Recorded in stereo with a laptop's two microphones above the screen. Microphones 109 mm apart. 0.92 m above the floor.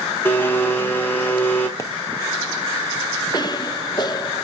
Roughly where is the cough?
Left.